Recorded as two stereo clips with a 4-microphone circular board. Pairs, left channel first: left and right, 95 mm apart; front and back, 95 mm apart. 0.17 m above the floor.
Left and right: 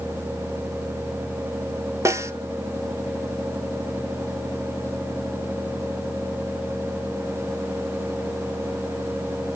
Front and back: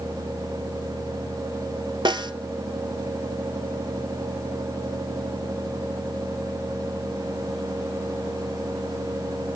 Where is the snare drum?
145° right, 1.0 m.